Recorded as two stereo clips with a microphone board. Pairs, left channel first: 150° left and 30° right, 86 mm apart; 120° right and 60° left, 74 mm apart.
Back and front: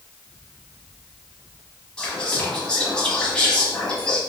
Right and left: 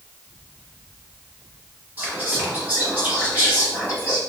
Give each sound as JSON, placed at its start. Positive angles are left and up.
{"t": 2.0, "sound": "whispering", "azimuth_deg": 85, "distance_m": 1.3}